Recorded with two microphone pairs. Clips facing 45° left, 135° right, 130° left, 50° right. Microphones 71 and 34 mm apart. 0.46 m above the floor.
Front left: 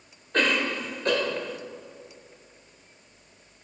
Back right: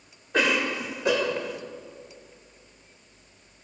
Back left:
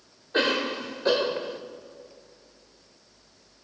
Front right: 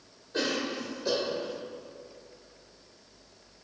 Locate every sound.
0.3 s a cough: 145° left, 1.9 m